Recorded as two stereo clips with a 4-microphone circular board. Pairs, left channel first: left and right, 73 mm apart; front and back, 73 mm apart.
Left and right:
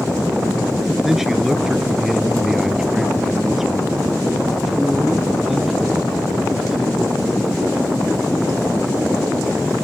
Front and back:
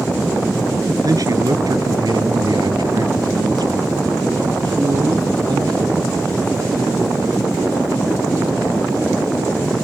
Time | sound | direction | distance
1.0 | a man speaking | 175° right | ?